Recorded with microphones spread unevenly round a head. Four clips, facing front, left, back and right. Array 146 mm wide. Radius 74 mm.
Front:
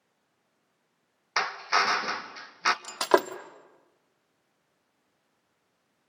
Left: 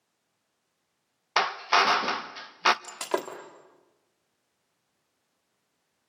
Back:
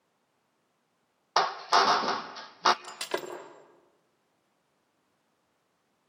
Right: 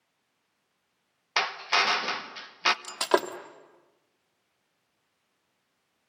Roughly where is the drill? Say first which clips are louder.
Left 4 dB, back 3 dB; behind left.